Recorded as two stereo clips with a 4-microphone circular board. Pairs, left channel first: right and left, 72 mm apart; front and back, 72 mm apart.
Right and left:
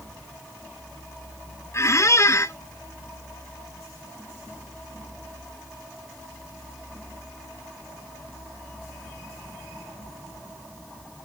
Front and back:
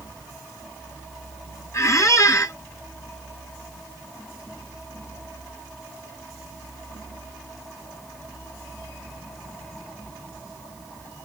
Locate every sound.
1.7 s a squeak: 45° right, 0.6 m